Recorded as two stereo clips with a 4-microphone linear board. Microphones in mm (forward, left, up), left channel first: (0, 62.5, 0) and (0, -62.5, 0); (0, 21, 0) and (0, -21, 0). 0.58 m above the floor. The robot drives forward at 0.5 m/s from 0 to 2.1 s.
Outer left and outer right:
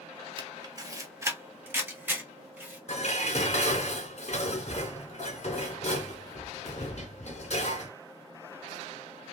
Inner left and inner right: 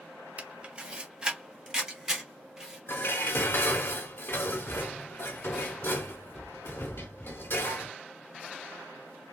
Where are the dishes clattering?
65° left (ahead or behind), 0.9 m.